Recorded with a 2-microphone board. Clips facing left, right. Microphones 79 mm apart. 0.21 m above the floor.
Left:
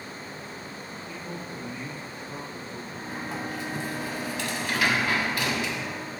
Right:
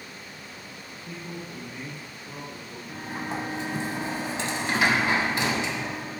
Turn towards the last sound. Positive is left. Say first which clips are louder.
# right 4 dB
turn(degrees=-25)  # may be behind; listen again after turning